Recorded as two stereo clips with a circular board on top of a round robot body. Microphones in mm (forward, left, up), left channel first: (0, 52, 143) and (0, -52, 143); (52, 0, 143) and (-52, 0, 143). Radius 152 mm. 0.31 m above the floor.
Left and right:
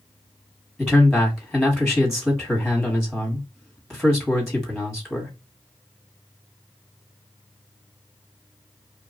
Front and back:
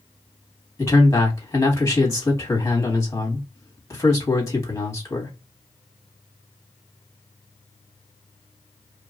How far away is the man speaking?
About 1.4 m.